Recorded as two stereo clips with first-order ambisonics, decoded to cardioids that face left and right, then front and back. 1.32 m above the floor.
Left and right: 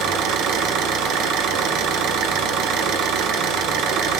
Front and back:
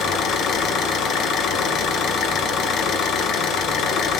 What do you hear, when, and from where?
0.0 s an engine running: 50° right, 1.0 m